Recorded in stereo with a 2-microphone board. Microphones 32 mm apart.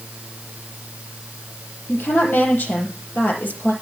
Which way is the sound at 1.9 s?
80° left.